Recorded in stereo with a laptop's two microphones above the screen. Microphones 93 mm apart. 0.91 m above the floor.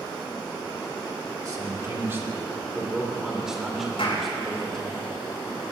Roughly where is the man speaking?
Right.